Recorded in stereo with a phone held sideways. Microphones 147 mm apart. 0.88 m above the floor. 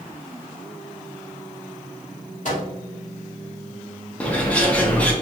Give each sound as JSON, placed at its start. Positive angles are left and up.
{"t": 2.5, "sound": "a microwave", "side_deg": 60, "distance_m": 1.7}
{"t": 4.2, "sound": "a bird", "side_deg": 10, "distance_m": 0.7}